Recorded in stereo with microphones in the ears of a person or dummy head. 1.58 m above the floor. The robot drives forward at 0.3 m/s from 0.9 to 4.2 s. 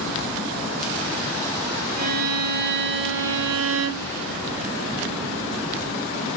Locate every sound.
2.0 s a violin: 45° right (ahead or behind), 0.9 m; by 4.1 s 90° right, 0.7 m